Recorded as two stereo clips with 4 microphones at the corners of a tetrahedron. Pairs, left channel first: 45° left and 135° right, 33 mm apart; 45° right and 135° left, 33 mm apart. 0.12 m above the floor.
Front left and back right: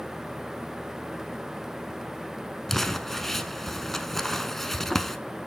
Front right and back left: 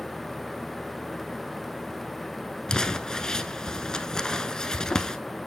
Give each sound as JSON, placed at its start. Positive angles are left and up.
{"t": 2.7, "sound": "crumpling", "azimuth_deg": -20, "distance_m": 0.7}